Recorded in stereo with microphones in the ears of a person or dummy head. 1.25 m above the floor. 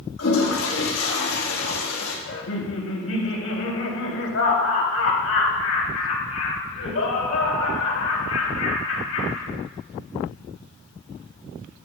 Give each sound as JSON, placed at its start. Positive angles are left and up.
{"t": 0.2, "sound": "a toilet flushing", "side_deg": 70, "distance_m": 1.6}
{"t": 2.3, "sound": "laughter", "side_deg": 85, "distance_m": 3.0}